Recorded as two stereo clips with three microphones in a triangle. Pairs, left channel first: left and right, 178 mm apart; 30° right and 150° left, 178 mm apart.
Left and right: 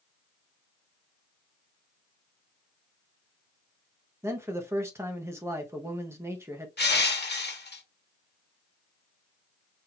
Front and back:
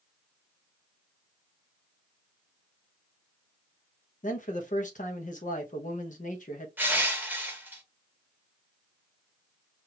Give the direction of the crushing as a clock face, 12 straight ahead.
10 o'clock.